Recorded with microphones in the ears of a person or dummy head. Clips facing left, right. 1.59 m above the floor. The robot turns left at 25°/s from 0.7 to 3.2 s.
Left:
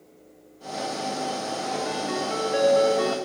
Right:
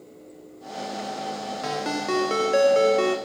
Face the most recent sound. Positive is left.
turn(degrees=-145)